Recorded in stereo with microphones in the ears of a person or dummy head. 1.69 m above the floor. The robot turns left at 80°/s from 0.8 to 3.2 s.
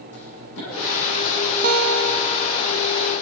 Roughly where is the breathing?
No breathing in this recording.